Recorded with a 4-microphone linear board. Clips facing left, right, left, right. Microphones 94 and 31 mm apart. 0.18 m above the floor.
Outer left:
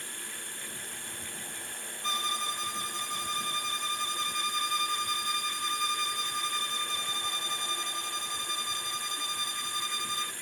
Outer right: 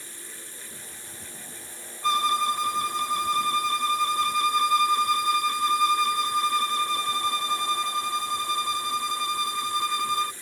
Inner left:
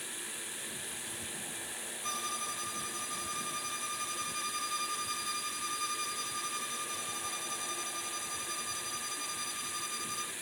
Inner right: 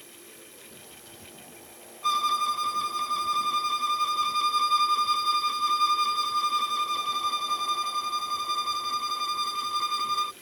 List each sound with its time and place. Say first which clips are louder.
0.0 s running water: outer left 2 dB, inner left 6 dB; 65° left (ahead or behind)
2.0 s a violin: outer right 11 dB, inner right 14 dB; 65° right (ahead or behind)